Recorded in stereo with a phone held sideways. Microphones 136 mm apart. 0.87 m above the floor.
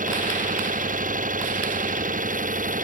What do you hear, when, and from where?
0.0 s an engine running: 75° right (ahead or behind)